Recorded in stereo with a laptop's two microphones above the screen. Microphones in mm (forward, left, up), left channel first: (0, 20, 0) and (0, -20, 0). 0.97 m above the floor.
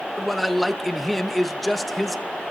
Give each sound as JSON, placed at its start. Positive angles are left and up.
{"t": 0.2, "sound": "a man speaking", "side_deg": 5, "distance_m": 0.9}